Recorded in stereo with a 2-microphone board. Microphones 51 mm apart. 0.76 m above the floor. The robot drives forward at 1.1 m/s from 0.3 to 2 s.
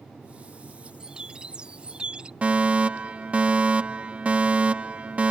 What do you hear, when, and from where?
1.0 s a bird: 15° right (ahead or behind)
2.4 s a fire alarm: 25° right (ahead or behind)